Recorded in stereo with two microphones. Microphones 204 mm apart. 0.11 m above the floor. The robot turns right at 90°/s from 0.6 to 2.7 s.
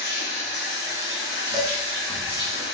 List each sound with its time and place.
0.0 s running water: 35° left, 1.8 m; by 2.7 s 135° right, 1.8 m
1.5 s dishes clattering: 20° left (ahead or behind), 1.0 m